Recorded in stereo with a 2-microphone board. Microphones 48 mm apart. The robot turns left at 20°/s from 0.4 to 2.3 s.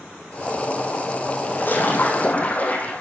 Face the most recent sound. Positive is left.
turn(degrees=35)  # may be behind; listen again after turning